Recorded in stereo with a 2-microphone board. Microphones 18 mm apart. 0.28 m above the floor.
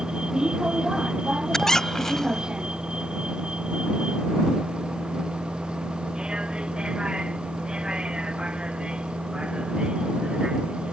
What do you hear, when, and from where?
0.0 s a vehicle: 45° right (ahead or behind); by 10.9 s 70° right (ahead or behind)
1.5 s a squeak: 30° left (ahead or behind)